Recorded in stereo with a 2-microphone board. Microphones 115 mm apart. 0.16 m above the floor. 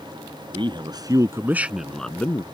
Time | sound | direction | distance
0.5 | a man speaking | 50° right (ahead or behind) | ?